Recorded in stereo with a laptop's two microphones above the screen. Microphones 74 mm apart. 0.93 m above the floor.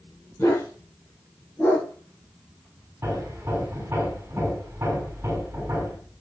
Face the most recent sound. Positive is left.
turn(degrees=-35)  # may be behind; listen again after turning